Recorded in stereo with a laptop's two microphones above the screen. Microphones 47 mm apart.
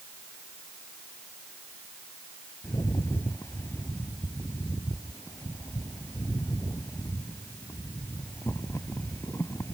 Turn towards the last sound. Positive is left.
turn(degrees=85)